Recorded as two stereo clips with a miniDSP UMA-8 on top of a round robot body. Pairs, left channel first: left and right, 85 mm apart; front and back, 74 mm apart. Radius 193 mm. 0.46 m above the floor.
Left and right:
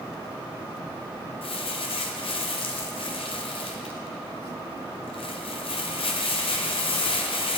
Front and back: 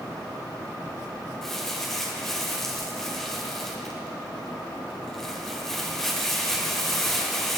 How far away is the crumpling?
About 0.8 m.